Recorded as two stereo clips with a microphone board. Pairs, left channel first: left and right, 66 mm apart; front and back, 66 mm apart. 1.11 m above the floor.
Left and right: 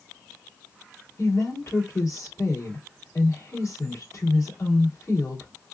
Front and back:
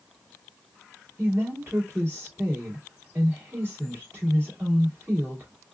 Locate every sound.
1.2 s a woman speaking: 125° left, 2.5 m